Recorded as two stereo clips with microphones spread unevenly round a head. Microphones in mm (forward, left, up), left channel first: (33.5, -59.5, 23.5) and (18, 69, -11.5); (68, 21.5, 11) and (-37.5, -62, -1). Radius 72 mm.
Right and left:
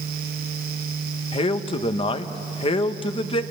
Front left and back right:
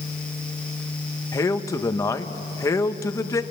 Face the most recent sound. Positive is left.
turn(degrees=-30)